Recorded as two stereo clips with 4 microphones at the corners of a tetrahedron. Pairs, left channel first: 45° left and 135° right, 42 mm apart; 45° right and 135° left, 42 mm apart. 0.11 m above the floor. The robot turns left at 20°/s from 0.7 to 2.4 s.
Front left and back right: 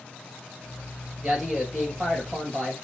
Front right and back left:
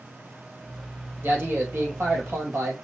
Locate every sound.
1.2 s a man speaking: 150° left, 2 m; by 2.7 s 125° left, 2 m